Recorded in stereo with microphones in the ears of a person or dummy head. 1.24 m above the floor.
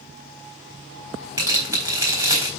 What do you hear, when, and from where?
1.4 s tearing paper: 20° right (ahead or behind), 4 m